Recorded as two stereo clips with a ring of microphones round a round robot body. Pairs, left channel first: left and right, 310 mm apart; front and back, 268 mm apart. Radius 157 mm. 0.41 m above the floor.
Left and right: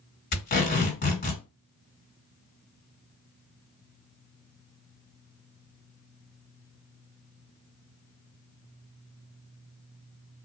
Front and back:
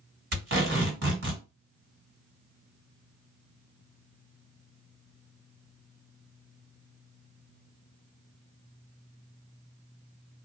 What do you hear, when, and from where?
0.3 s tape being pulled: 145° left, 2.5 m